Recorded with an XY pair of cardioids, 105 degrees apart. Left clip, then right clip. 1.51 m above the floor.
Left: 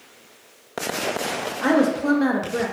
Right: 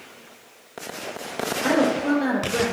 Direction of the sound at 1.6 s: 50° left.